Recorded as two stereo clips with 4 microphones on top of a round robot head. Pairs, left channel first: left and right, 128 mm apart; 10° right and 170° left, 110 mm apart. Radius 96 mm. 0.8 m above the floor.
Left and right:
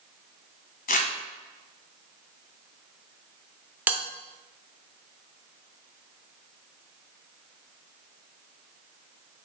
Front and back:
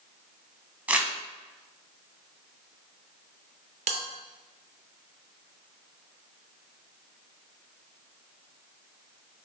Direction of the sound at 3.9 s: 165° right.